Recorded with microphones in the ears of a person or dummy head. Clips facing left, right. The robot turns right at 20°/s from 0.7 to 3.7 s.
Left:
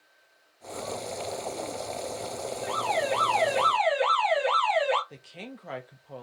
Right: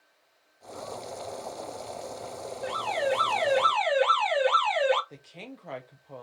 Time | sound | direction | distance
2.6 | an alarm | 10° right (ahead or behind) | 1.3 m
5.1 | a woman speaking | 5° left (ahead or behind) | 0.7 m